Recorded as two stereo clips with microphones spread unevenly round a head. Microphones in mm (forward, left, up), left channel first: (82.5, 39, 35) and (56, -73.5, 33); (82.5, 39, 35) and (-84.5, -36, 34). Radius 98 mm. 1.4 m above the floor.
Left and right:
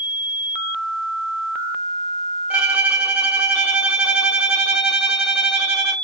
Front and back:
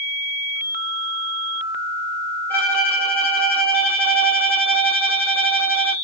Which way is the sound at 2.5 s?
40° right.